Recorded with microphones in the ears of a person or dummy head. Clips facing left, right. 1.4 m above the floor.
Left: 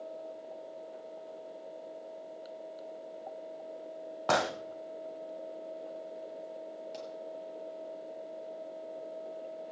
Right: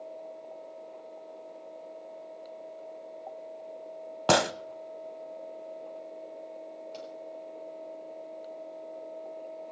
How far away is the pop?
About 5.5 m.